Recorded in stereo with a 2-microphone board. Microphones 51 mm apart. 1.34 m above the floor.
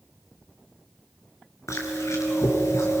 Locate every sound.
1.7 s chewing: 75° left (ahead or behind), 4 m